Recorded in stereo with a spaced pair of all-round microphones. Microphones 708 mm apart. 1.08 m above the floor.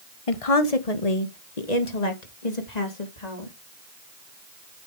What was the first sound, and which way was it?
A woman speaking, 50° left (ahead or behind).